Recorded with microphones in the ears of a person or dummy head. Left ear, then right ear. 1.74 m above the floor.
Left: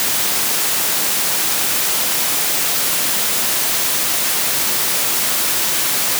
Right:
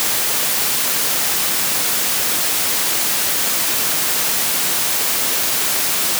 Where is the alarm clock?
No alarm clock in this recording.